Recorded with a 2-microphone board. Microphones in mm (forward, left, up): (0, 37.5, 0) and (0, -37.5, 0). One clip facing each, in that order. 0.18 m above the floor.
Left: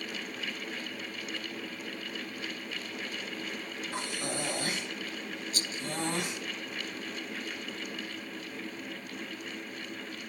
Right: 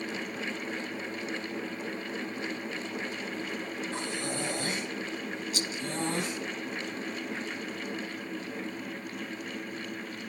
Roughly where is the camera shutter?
No camera shutter in this recording.